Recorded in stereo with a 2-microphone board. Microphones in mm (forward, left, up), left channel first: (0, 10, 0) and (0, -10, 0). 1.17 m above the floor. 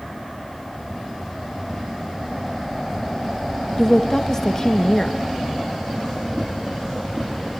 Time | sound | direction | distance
3.8 | a woman speaking | 25° left (ahead or behind) | 1.9 m